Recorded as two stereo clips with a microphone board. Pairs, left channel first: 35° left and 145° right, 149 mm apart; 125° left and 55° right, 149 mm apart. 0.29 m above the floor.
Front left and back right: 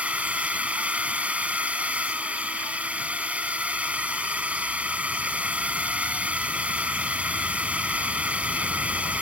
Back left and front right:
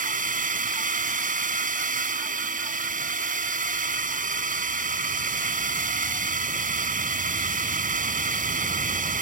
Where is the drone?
65° right.